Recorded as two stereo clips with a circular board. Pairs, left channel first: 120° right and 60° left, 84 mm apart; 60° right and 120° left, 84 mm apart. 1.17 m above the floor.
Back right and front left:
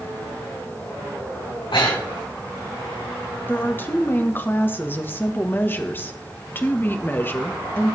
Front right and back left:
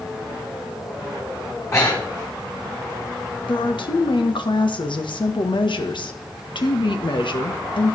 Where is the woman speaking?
55° right, 1.3 m.